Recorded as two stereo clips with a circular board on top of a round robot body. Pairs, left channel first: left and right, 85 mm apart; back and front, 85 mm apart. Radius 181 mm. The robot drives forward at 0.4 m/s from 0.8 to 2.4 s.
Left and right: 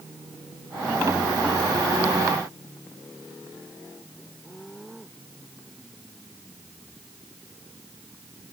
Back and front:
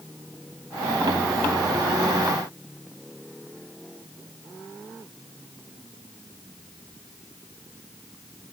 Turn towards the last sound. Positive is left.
No sound to turn to.